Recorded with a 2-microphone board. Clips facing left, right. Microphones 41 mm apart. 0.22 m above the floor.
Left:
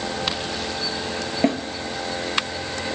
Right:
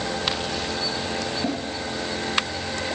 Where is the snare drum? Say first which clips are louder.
Left 9 dB; 75° left (ahead or behind), 1.5 m.